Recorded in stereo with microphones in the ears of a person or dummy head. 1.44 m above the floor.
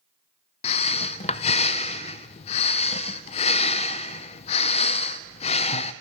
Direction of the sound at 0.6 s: 35° left (ahead or behind).